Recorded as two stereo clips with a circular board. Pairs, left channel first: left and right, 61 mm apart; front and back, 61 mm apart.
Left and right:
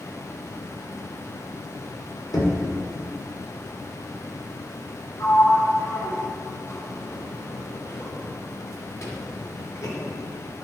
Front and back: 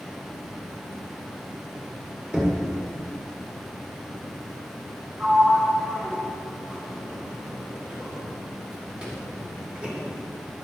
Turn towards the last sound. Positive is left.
turn(degrees=110)